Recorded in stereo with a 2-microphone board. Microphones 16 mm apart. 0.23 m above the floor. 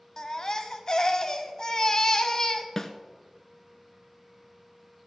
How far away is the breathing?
No breathing in this recording.